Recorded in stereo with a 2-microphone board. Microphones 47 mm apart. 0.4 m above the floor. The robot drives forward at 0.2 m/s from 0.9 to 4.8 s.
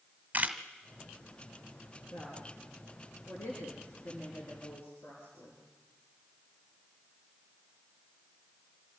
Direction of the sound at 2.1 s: 80° left.